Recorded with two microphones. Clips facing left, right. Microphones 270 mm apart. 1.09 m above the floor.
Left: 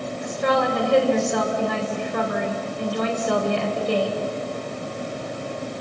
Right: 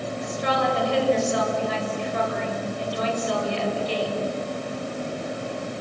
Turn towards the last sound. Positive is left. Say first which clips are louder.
# left 4 dB
turn(degrees=60)  # may be behind; listen again after turning